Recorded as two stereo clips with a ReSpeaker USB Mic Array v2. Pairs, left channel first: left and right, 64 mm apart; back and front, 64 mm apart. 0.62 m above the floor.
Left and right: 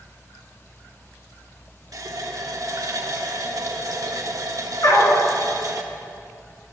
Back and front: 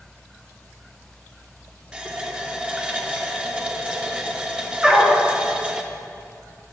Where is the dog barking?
75° left, 2 m.